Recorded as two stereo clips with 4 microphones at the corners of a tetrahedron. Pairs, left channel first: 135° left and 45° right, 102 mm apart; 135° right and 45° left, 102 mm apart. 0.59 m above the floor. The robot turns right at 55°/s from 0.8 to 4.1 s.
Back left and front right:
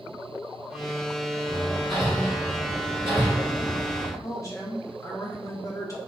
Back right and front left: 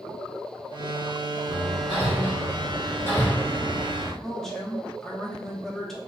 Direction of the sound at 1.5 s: 160° right.